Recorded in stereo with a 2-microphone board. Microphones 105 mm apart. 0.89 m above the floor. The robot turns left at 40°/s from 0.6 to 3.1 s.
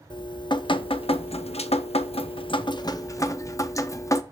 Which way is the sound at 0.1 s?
130° left.